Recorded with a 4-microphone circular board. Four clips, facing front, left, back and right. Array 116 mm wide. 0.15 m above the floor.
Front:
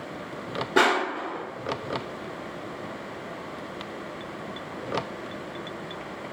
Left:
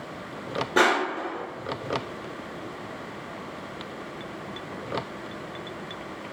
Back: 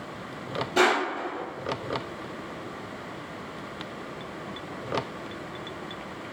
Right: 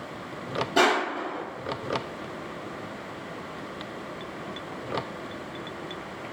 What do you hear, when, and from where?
0.8 s crushing: 30° left, 1.0 m